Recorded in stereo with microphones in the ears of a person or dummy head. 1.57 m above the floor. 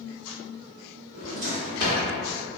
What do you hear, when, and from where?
1.1 s a drawer: 55° right (ahead or behind), 1.5 m